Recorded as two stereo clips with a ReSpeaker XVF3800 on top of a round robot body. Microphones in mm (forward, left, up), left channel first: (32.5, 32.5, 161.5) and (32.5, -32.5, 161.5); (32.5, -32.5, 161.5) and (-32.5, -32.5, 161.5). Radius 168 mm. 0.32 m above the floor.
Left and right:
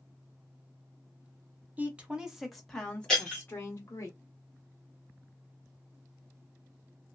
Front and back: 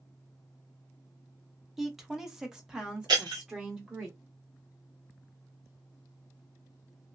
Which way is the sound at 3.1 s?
175° left.